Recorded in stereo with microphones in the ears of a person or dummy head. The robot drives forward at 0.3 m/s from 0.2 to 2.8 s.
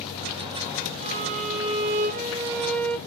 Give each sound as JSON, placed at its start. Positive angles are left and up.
{"t": 1.0, "sound": "a violin", "side_deg": -30, "distance_m": 0.7}